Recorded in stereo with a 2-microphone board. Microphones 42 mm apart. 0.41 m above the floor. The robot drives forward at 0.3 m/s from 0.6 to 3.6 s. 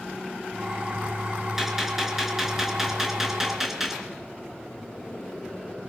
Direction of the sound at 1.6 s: 5° right (ahead or behind).